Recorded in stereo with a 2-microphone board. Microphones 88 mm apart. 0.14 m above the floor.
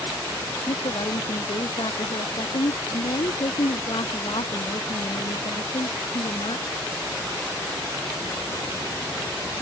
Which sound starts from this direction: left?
A woman speaking, at 0.7 s.